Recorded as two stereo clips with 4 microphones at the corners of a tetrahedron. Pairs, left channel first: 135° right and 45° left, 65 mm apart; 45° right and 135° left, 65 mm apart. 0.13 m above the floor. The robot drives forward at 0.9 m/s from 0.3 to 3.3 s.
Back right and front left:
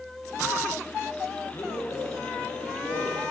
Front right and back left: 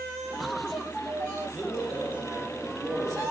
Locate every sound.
1.5 s a man speaking: 155° right, 2.5 m; by 3.3 s 165° right, 3.5 m